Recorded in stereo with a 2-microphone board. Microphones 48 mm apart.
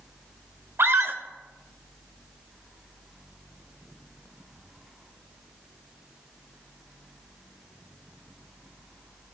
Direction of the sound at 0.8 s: 60° right (ahead or behind).